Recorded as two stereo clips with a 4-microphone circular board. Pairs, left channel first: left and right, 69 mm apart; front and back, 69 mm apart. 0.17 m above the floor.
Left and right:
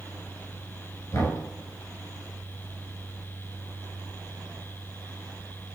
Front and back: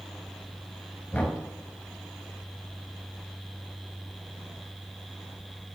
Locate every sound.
1.1 s knocking: 65° left, 1.8 m